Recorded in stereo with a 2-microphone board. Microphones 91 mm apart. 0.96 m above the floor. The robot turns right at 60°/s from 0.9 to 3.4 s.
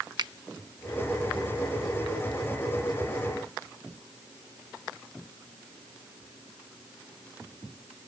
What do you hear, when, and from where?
0.2 s a finger snap: 55° right (ahead or behind)